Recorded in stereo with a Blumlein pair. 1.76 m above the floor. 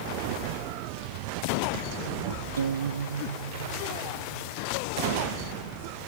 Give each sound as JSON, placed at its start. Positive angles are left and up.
{"t": 2.6, "sound": "a guitar", "azimuth_deg": -65}